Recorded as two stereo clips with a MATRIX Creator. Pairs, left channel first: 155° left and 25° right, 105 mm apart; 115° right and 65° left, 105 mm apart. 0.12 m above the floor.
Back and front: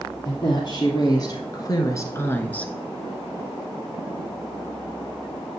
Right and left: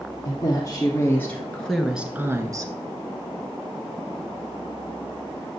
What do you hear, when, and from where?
0.2 s a woman speaking: 160° right, 2.5 m; by 2.7 s 85° left, 1.4 m